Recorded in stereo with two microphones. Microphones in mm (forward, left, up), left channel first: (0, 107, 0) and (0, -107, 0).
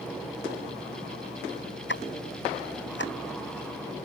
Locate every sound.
1.9 s ticking: 60° left (ahead or behind)